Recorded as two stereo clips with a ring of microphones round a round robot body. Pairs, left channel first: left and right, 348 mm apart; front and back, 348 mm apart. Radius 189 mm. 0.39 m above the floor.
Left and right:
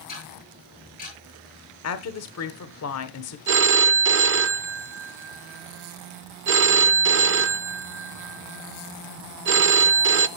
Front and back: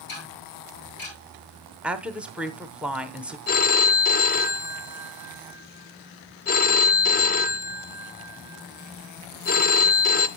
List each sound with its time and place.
0.1 s ticking: 25° left, 8.5 m
1.8 s a woman speaking: 95° left, 1.0 m
3.5 s a phone ringing: 50° right, 0.5 m